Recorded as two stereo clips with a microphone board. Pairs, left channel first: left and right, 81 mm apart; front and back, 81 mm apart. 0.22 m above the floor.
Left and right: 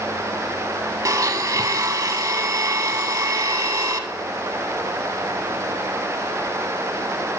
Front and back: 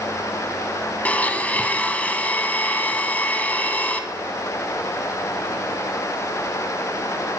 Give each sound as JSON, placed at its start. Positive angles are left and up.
{"t": 1.1, "sound": "a blender", "azimuth_deg": -65, "distance_m": 0.6}